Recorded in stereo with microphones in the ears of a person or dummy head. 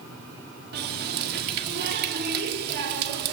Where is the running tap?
60° right (ahead or behind), 1.9 m.